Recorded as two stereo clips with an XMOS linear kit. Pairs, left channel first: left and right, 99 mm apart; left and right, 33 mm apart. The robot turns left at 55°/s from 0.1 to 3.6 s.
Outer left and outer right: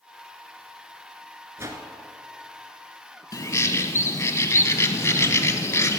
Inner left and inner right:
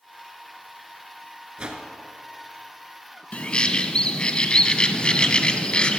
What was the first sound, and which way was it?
A whoosh, 30° right (ahead or behind).